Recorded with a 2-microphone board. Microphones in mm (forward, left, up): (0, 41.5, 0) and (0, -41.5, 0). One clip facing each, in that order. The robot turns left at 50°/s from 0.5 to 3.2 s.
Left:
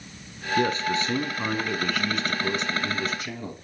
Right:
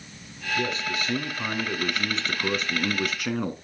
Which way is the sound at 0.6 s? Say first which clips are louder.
Left 5 dB; 50° left.